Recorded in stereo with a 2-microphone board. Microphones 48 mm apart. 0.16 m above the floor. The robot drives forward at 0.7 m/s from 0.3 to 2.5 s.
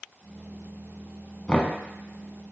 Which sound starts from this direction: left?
Knocking, at 1.5 s.